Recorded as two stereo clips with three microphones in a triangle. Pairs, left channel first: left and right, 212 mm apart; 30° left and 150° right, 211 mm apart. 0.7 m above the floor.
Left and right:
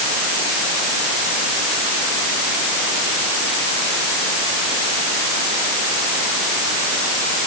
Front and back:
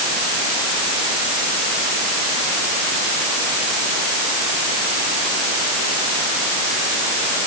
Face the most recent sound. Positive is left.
No sound to turn to.